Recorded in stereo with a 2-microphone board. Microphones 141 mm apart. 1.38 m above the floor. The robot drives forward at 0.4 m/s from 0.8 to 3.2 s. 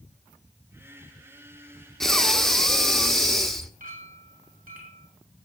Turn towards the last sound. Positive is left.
turn(degrees=-85)